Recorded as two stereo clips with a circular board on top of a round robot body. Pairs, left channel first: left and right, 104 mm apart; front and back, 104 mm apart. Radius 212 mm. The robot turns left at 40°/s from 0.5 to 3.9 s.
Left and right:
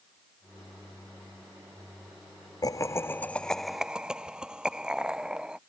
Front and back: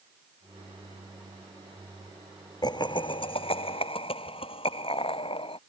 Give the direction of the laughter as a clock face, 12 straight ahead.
11 o'clock.